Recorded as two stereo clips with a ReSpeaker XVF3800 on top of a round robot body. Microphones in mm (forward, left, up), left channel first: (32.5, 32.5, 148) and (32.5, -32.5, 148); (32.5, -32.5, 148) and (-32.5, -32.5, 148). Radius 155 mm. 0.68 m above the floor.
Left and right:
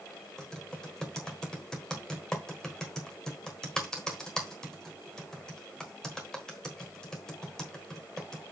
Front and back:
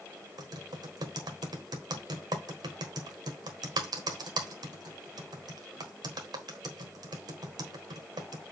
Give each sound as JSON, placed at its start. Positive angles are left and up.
{"t": 0.4, "sound": "typing on a keyboard", "azimuth_deg": 175, "distance_m": 1.4}